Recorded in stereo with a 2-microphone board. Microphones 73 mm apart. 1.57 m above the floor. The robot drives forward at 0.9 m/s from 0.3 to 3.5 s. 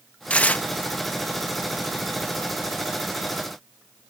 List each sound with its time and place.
0.3 s tearing paper: 15° left (ahead or behind); by 0.7 s 20° left (ahead or behind)